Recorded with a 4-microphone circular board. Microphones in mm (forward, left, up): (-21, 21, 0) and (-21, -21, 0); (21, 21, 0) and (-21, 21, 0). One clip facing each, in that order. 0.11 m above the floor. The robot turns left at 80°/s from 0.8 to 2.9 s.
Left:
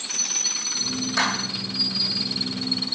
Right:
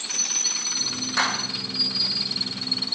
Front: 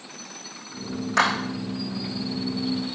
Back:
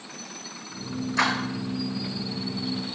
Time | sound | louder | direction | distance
1.2 | a clap | even, front 3 dB | 10° right | 3.5 m